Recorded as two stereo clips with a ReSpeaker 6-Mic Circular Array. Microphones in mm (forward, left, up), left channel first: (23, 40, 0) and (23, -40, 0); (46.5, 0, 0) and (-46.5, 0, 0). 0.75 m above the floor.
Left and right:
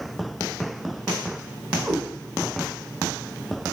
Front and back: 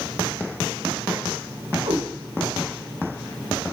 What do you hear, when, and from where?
1.8 s a cat meowing: 175° right, 1.9 m